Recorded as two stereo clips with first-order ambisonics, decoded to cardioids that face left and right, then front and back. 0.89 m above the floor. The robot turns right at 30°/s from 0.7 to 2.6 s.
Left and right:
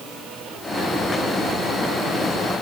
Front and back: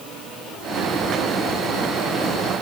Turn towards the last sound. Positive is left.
No sound to turn to.